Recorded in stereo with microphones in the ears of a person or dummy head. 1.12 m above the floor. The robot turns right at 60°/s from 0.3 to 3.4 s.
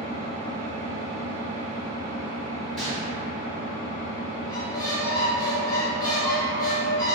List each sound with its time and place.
0.0 s an engine running: 120° right, 0.8 m; by 7.2 s 65° left, 0.8 m
2.8 s a gunshot: centre (ahead or behind), 1.3 m; by 3.1 s 20° left (ahead or behind), 1.3 m
4.5 s a squeak: 20° left (ahead or behind), 0.5 m